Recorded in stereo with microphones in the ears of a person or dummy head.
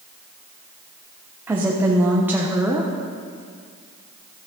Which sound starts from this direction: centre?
A woman speaking, at 1.5 s.